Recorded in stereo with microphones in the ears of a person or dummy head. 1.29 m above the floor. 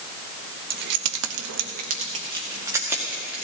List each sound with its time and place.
0.7 s keys jangling: 55° right (ahead or behind), 1.2 m; by 3.4 s 5° right (ahead or behind), 2.5 m